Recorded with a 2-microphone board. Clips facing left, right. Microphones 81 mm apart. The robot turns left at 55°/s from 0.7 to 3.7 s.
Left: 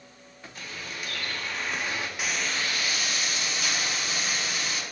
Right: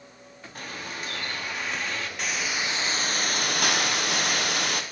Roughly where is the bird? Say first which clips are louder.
Right 3 dB; behind right.